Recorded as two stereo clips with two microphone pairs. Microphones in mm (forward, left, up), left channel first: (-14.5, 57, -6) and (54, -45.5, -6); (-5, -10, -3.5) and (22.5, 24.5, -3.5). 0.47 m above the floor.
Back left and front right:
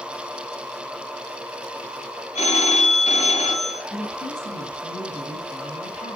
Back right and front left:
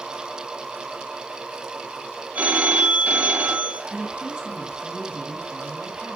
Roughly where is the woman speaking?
Behind left.